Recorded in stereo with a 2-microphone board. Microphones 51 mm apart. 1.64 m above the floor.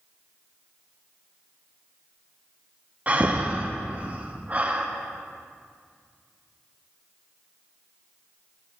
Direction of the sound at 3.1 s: 30° right (ahead or behind).